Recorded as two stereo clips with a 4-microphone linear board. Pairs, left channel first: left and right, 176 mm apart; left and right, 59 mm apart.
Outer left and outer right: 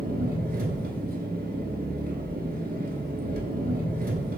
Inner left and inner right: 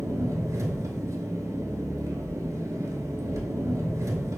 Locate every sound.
0.0 s an engine running: 60° right (ahead or behind), 0.7 m